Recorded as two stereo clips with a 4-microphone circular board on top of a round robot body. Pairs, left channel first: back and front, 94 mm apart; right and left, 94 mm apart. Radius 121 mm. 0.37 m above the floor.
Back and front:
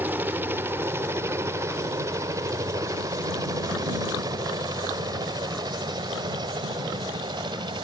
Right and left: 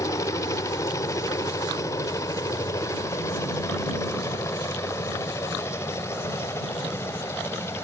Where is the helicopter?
60° right; by 7.8 s 30° right.